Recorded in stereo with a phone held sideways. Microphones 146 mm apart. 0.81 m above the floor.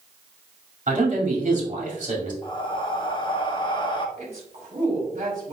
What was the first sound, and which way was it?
A man speaking, 55° right (ahead or behind).